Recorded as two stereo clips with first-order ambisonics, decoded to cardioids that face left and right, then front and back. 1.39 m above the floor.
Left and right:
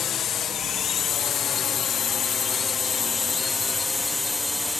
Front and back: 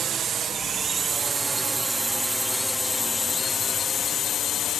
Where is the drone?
135° left; by 4.8 s 10° left.